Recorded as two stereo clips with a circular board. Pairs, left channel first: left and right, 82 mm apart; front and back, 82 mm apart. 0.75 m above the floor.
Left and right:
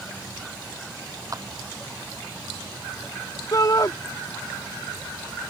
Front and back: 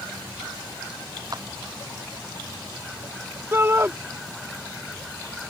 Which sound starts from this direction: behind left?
A shout, at 3.5 s.